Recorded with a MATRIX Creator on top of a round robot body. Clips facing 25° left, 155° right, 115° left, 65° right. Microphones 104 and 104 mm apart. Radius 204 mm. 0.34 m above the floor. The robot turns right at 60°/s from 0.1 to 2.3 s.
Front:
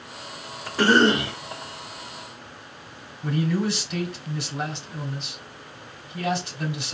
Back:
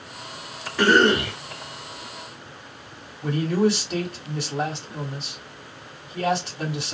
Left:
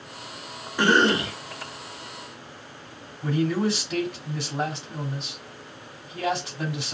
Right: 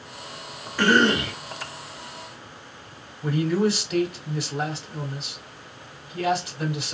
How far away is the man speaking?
About 3 m.